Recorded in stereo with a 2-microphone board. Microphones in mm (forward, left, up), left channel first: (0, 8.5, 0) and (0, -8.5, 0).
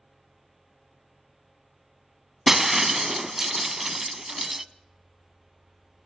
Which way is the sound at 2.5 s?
20° right (ahead or behind).